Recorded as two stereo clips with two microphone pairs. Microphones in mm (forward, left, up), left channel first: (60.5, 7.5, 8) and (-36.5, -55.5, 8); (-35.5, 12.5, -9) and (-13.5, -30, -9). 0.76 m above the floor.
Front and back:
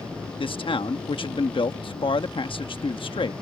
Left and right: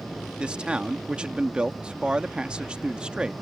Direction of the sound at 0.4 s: Straight ahead.